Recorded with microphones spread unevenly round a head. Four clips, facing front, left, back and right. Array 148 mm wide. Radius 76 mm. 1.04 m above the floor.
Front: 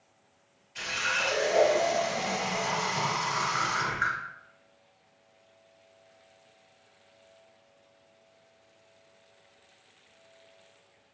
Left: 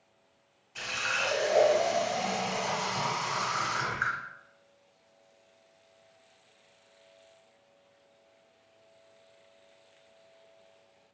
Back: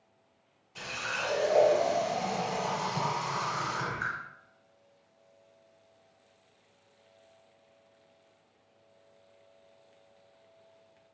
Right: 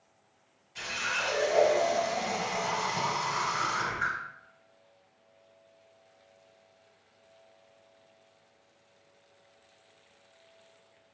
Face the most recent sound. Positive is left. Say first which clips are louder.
# left 1 dB, front 4 dB
turn(degrees=150)